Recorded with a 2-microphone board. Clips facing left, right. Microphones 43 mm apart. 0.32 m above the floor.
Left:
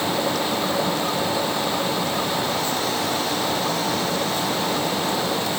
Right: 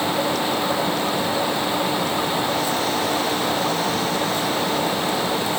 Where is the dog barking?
I don't hear a dog barking.